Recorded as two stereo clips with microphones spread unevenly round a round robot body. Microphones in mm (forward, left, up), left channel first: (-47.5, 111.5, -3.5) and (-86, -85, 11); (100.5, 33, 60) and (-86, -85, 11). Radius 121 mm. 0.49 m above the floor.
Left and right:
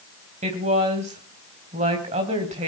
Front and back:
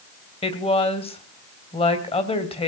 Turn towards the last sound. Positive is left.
turn(degrees=-35)